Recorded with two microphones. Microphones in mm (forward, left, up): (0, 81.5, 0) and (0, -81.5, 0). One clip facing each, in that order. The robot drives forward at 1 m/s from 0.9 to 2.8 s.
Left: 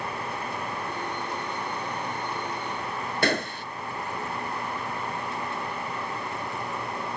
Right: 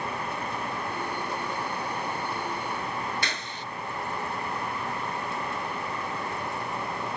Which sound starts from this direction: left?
A gunshot, at 3.2 s.